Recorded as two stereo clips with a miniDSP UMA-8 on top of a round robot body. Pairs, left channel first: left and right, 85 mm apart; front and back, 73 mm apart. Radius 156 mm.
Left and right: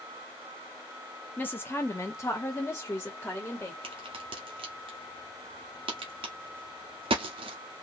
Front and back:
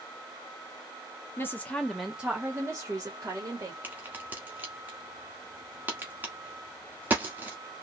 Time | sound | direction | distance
1.4 | a woman speaking | 35° left | 1.1 m
3.8 | a crack | 110° right | 0.8 m